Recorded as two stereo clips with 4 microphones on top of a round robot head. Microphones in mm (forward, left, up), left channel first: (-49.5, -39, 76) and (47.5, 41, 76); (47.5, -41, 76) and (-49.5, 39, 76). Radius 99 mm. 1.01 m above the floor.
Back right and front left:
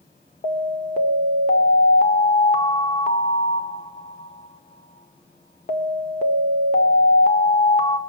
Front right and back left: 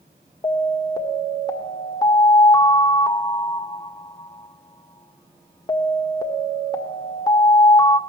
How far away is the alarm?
About 1.9 m.